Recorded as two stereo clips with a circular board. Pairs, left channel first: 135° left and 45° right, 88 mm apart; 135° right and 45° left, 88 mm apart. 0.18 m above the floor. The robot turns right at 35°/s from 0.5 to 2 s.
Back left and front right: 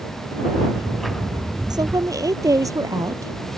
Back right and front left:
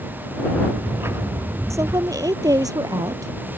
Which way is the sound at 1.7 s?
10° right.